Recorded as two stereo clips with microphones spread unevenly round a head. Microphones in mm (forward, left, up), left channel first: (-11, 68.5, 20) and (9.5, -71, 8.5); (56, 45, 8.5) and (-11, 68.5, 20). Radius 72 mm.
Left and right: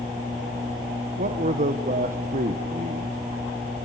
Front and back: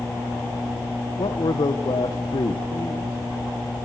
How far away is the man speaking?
About 1.0 m.